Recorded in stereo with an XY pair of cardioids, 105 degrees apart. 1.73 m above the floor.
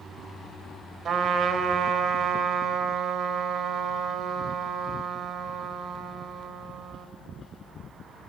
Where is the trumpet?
55° right, 0.9 m.